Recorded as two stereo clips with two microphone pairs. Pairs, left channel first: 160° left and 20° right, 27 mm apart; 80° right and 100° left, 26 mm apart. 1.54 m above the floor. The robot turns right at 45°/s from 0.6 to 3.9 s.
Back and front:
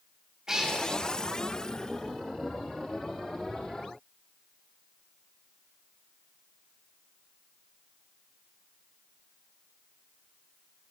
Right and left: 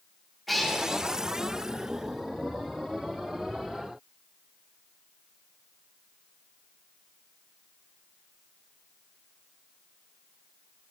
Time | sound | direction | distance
0.5 | a cat meowing | 10° left | 0.7 m